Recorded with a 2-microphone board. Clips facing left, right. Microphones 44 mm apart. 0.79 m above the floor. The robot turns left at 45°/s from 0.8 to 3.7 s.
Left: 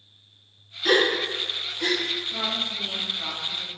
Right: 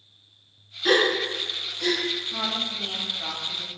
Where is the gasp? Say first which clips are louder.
Even; 5° right (ahead or behind), 0.7 m; by 2.0 s 30° left (ahead or behind), 0.7 m.